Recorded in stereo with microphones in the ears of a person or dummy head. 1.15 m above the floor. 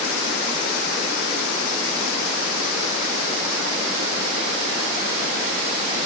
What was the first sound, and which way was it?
Only background noise.